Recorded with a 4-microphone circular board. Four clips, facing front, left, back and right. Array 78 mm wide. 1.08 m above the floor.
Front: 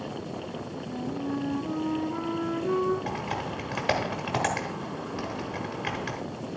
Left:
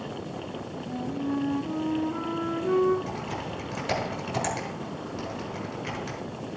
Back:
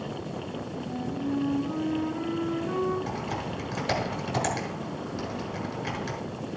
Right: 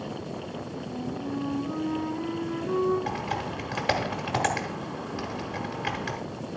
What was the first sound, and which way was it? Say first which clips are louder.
A flute: left 4 dB, back 1 dB; 40° left.